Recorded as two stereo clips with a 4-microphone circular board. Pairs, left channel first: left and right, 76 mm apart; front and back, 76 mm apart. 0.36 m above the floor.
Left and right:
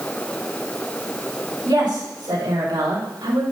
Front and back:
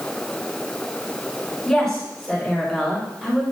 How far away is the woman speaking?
About 4 m.